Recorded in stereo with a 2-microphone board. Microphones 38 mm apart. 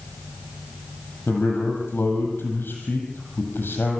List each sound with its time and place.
1.3 s a man speaking: 65° left (ahead or behind), 6.5 m